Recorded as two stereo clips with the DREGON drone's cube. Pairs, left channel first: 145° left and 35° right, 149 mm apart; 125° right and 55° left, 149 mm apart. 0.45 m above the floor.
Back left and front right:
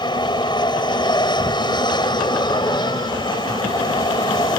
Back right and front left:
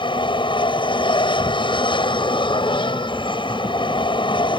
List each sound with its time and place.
0.0 s an aircraft: 165° right